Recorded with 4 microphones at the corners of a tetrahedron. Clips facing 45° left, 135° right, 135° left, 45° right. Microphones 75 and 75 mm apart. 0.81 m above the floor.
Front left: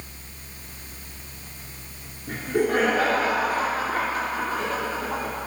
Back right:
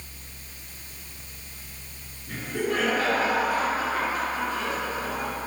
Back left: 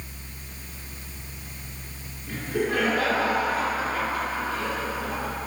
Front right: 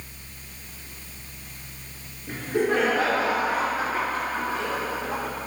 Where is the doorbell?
I don't hear a doorbell.